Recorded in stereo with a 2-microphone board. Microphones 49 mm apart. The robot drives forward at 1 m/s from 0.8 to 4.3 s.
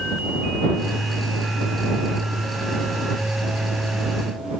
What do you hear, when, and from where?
Only background noise.